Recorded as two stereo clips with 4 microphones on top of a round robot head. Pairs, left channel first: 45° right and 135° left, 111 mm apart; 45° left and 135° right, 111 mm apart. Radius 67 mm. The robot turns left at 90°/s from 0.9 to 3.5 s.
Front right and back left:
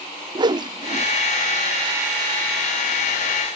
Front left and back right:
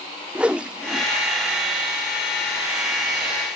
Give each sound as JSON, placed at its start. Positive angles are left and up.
{"t": 0.3, "sound": "a whoosh", "azimuth_deg": 150}